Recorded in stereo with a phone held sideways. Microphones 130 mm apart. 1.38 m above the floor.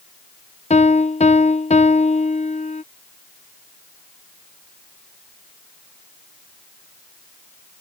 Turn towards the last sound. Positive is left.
turn(degrees=60)  # may be behind; listen again after turning